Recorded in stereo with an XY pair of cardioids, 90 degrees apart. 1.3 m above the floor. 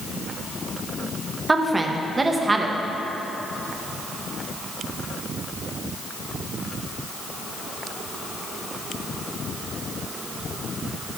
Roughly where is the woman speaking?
Ahead.